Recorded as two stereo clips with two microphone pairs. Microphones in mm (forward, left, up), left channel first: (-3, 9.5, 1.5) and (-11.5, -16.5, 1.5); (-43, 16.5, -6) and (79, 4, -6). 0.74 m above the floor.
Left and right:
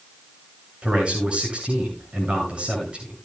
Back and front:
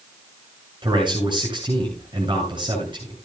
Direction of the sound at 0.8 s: 55° right.